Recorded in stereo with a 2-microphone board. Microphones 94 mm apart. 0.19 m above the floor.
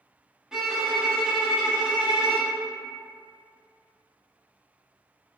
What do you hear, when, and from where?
0.5 s a violin: 5° right (ahead or behind), 0.6 m